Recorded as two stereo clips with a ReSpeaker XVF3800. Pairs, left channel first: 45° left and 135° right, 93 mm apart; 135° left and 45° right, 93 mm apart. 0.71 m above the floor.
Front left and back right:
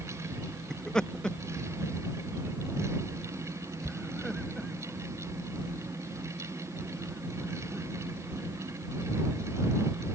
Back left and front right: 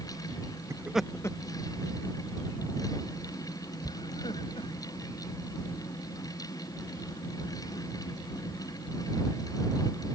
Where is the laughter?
35° right; by 10.2 s 130° left.